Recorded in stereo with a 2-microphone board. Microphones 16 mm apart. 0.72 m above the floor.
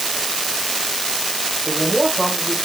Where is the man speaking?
10° left (ahead or behind), 1.9 m.